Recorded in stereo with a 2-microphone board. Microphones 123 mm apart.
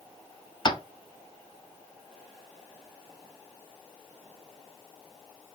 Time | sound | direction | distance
0.7 | tapping | 40° left (ahead or behind) | 0.6 m